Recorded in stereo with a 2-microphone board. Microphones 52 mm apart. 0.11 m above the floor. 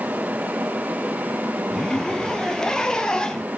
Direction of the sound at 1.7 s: 15° left (ahead or behind).